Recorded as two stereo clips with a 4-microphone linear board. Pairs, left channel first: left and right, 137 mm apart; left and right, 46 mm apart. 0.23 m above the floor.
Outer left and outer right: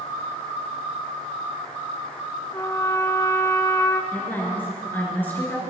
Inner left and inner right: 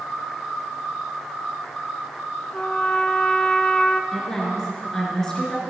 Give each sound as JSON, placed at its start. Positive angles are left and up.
{"t": 2.5, "sound": "a trumpet", "side_deg": 25, "distance_m": 0.6}
{"t": 4.1, "sound": "a woman speaking", "side_deg": 15, "distance_m": 3.0}